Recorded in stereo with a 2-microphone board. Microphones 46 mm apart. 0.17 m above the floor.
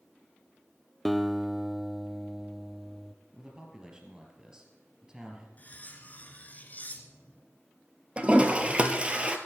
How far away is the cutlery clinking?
About 1.6 m.